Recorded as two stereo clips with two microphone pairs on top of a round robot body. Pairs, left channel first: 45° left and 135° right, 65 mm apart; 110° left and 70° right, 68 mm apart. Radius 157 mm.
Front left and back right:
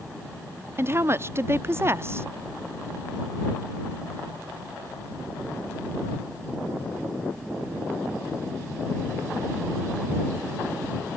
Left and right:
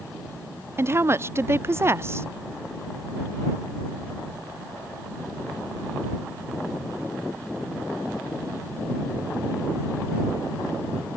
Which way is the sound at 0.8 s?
95° right.